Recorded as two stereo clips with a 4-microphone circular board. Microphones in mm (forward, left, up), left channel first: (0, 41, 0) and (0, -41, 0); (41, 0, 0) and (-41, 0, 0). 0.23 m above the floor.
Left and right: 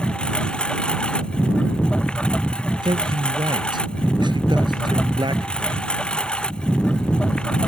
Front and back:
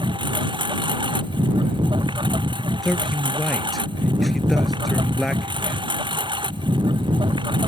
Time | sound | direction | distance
0.0 | a lawn mower | 170° left | ?
2.8 | a man speaking | 90° right | ?